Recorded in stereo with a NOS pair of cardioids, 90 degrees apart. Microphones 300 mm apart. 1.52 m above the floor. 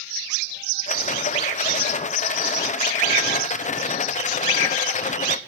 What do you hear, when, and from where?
0.9 s a rattle: 25° left, 0.8 m